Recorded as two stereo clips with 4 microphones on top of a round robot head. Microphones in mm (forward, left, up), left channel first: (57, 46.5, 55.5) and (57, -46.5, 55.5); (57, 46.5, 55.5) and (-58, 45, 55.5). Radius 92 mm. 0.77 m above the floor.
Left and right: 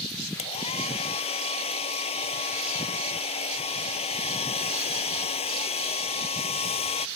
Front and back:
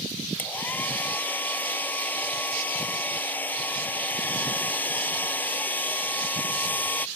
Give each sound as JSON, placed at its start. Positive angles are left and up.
{"t": 0.4, "sound": "a hair dryer", "azimuth_deg": 75}